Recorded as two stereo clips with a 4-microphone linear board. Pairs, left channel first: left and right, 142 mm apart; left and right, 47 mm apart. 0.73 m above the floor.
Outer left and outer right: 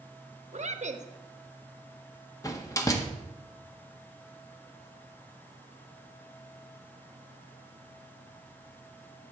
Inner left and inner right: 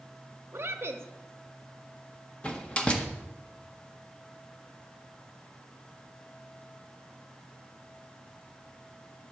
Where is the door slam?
25° left (ahead or behind), 0.8 m.